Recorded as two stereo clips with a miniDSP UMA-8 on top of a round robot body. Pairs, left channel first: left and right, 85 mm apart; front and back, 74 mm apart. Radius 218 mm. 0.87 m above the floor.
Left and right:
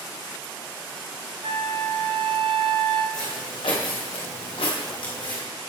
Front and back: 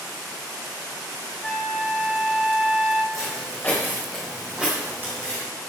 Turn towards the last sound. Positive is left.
turn(degrees=130)